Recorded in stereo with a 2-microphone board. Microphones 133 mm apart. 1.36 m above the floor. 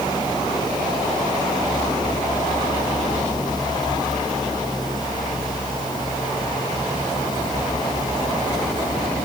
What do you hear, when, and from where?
Only background noise.